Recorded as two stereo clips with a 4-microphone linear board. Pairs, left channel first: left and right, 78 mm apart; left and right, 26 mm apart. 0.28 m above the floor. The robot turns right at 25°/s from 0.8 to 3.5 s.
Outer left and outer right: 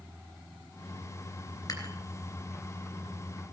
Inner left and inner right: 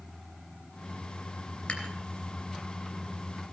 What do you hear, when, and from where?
1.7 s dishes clattering: 50° left (ahead or behind), 3 m; by 1.9 s 55° left (ahead or behind), 3 m